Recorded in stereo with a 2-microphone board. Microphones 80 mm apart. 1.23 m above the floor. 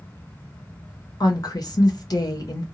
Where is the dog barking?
No dog barking in this recording.